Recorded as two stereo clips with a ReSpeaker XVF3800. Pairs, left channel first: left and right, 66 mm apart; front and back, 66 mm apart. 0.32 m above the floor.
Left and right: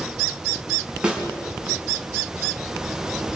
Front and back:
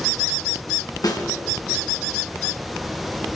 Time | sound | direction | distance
1.0 | a snare drum | 15° right | 2.5 m